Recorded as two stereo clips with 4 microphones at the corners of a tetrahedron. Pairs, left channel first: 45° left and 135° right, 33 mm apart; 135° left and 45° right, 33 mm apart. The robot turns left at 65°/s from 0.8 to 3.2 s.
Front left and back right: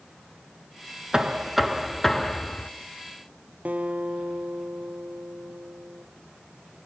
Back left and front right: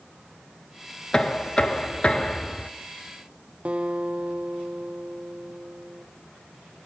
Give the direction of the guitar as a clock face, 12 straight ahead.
3 o'clock.